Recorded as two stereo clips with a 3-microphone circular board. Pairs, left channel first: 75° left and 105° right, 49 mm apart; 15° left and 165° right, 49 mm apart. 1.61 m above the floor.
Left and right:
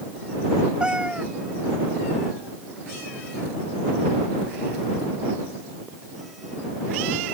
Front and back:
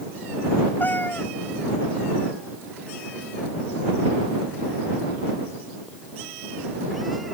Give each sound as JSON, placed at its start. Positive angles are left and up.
{"t": 0.8, "sound": "a cat meowing", "azimuth_deg": -30}